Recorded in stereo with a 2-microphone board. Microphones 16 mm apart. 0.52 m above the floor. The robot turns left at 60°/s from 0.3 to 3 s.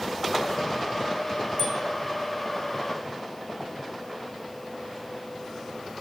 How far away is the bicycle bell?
About 4 m.